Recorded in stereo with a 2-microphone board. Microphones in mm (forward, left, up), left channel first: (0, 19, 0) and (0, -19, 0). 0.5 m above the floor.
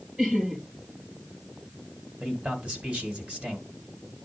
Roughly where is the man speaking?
Right.